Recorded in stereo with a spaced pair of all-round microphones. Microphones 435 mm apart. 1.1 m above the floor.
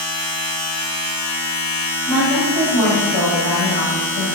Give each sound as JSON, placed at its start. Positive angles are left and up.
{"t": 0.0, "sound": "a machine running", "side_deg": 60, "distance_m": 1.8}
{"t": 2.1, "sound": "a woman speaking", "side_deg": 60, "distance_m": 1.7}